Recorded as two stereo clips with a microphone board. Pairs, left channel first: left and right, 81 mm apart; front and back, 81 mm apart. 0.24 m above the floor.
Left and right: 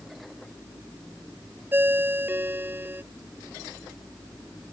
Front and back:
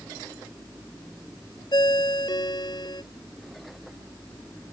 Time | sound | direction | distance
1.7 | a ringtone | 25° right | ?